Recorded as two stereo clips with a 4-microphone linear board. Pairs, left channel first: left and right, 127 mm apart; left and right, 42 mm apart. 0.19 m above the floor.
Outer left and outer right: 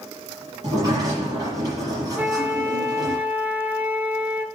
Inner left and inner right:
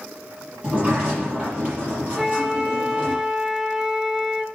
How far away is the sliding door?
About 5.5 m.